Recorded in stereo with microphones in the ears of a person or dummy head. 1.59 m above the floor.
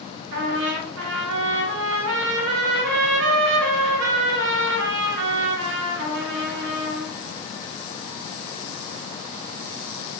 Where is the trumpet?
55° right (ahead or behind), 0.6 m.